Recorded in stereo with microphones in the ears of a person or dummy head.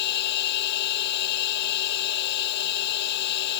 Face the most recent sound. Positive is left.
turn(degrees=60)  # may be behind; listen again after turning